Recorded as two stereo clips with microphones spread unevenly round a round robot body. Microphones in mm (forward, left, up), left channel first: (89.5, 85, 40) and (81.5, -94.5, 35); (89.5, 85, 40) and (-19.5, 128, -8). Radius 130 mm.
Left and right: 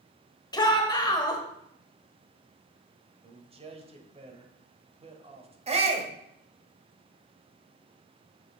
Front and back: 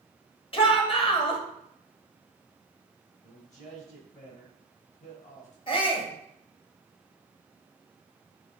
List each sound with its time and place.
0.5 s a shout: 30° left, 1.4 m
3.2 s a man speaking: 55° right, 1.3 m
5.7 s a shout: 80° right, 1.2 m